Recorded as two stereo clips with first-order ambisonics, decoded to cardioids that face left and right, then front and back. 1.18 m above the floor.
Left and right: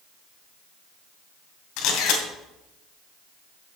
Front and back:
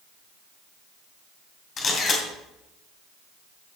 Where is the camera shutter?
60° left, 2.5 m.